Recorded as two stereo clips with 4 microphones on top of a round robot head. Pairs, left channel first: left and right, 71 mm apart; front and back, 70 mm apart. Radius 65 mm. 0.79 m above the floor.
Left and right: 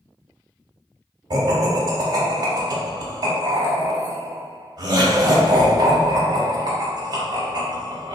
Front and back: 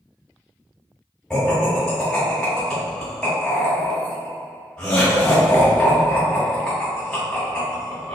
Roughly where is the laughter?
Right.